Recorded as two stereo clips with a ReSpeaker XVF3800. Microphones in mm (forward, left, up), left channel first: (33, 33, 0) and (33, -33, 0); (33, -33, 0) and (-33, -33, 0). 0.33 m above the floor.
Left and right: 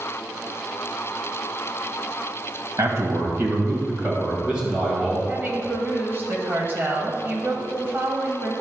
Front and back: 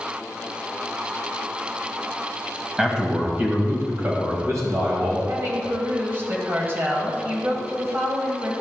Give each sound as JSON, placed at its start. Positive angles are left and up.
{"t": 2.8, "sound": "a man speaking", "azimuth_deg": -100, "distance_m": 1.8}
{"t": 5.3, "sound": "a woman speaking", "azimuth_deg": -135, "distance_m": 1.6}